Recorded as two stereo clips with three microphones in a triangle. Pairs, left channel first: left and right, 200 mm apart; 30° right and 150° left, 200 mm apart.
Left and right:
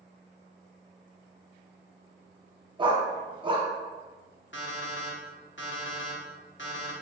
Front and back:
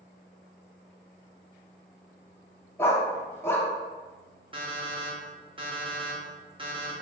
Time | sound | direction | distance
2.8 | a dog barking | 90° right | 0.6 m
4.5 | an alarm clock | 90° left | 0.8 m